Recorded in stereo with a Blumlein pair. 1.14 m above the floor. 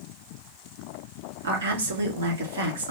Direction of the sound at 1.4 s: 70° right.